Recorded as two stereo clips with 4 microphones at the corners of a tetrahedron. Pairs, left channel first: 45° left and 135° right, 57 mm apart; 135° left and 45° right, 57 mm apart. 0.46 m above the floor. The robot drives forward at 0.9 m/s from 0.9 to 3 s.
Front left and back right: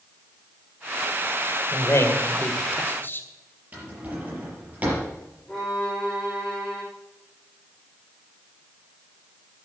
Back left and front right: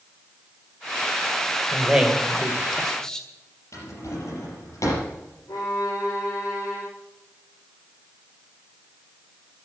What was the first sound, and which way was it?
A man speaking, 30° left.